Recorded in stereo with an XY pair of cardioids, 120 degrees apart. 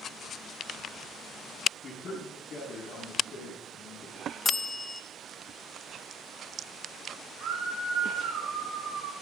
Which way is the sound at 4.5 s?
25° left.